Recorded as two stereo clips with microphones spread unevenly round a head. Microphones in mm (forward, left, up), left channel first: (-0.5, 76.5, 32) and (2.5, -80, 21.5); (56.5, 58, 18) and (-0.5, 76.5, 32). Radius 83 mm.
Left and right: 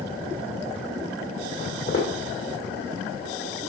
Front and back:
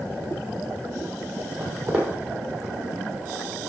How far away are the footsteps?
About 2.5 m.